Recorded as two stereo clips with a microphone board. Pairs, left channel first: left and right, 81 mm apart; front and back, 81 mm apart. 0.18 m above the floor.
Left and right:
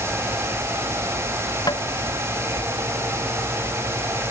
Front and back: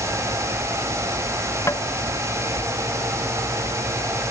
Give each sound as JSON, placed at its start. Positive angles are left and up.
{"t": 1.7, "sound": "tapping", "azimuth_deg": 55}